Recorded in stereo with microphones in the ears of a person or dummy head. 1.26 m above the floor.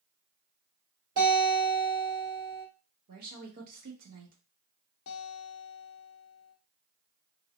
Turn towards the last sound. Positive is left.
turn(degrees=65)  # may be behind; listen again after turning